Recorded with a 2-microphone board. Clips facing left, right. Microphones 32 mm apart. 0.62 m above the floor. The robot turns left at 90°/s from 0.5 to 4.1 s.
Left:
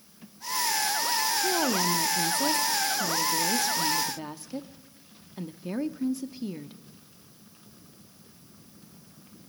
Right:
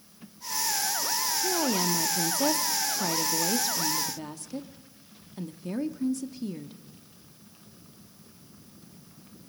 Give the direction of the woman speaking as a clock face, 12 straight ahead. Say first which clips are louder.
Right 1 dB; 11 o'clock.